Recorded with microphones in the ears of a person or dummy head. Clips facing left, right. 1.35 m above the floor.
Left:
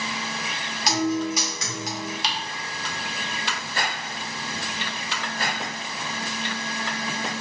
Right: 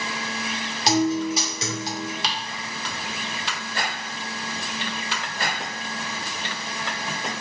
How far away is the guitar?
About 2.5 m.